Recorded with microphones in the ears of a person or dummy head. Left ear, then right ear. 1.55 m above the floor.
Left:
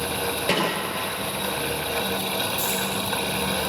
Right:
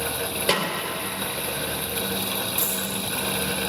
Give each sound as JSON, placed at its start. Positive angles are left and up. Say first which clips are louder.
{"t": 0.5, "sound": "a snare drum", "louder": "even", "side_deg": -30, "distance_m": 3.5}
{"t": 2.6, "sound": "a dropped coin", "louder": "left 3 dB", "side_deg": -35, "distance_m": 4.0}